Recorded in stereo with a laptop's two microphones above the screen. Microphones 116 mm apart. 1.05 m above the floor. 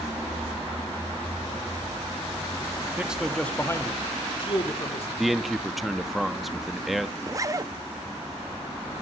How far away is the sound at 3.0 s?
About 1.7 m.